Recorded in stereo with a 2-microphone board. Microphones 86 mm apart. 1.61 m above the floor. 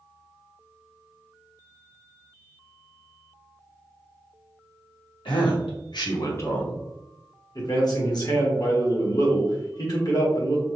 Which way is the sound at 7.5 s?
50° left (ahead or behind).